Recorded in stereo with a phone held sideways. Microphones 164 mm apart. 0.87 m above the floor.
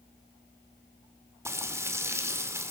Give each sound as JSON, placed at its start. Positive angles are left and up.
{"t": 1.4, "sound": "frying", "side_deg": -15, "distance_m": 2.0}